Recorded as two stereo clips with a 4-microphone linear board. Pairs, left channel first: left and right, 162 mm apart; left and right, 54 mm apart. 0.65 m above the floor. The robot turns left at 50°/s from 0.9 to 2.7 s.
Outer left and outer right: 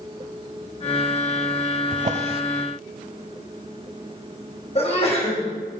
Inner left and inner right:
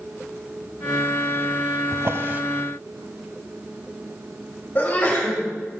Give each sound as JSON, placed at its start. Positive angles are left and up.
{"t": 1.9, "sound": "a drawer", "side_deg": -55, "distance_m": 0.8}
{"t": 4.8, "sound": "a sneeze", "side_deg": 40, "distance_m": 4.0}